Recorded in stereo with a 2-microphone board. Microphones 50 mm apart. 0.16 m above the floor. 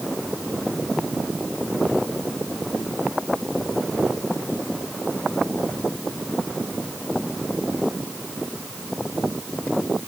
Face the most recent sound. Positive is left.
No sound to turn to.